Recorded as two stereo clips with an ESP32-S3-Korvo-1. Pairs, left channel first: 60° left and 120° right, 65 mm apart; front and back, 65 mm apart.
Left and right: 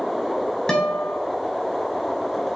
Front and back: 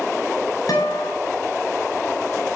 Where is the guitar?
20° right, 5 m.